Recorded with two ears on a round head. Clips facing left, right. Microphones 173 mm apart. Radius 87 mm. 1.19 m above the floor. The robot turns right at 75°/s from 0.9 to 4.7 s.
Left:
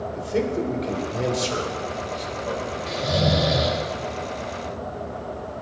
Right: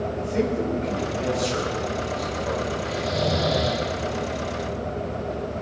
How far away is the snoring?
About 4 m.